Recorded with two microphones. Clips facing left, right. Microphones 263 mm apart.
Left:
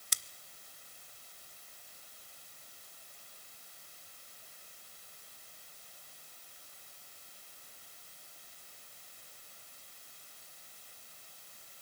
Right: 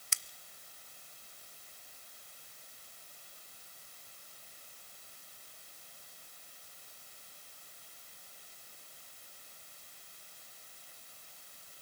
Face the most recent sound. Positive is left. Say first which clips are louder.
# left 3 dB
turn(degrees=40)  # may be behind; listen again after turning